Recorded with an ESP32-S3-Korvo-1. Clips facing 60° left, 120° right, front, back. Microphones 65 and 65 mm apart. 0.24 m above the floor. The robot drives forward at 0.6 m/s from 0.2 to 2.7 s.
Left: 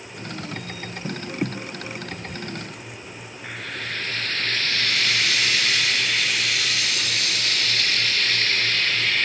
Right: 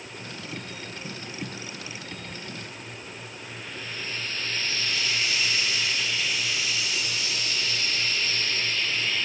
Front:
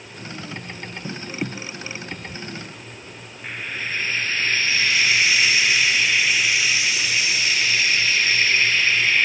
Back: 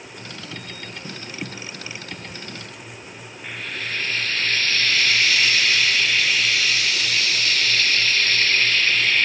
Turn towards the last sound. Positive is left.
turn(degrees=75)